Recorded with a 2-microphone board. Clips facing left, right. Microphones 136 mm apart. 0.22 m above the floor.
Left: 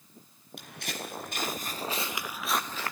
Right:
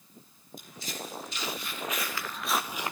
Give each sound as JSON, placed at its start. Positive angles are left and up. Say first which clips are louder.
{"t": 0.6, "sound": "footsteps", "louder": "left 1 dB", "side_deg": 70, "distance_m": 3.0}